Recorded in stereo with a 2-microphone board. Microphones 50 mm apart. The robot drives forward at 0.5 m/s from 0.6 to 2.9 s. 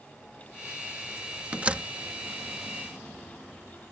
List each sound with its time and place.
1.5 s a door slam: 30° right (ahead or behind); by 1.9 s 25° right (ahead or behind)